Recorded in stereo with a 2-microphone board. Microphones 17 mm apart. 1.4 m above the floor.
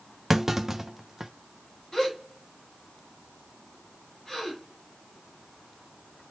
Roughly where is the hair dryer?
No hair dryer in this recording.